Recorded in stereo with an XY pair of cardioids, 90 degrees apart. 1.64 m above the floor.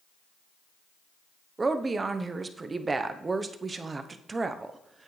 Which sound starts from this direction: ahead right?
A woman speaking, at 1.6 s.